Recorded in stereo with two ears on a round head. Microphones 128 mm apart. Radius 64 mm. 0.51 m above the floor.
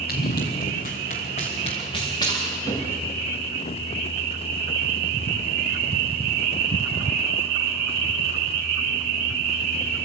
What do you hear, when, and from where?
0.1 s running footsteps: 80° left, 3.5 m; by 3.1 s 20° left (ahead or behind), 4 m